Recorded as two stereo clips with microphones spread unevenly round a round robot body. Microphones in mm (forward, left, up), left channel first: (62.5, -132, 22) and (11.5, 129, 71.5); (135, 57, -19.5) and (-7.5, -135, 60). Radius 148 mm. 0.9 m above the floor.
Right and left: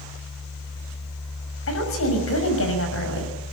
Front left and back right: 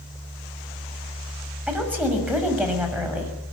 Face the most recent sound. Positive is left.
turn(degrees=-40)